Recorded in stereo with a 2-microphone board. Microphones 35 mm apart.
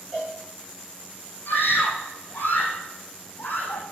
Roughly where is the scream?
Left.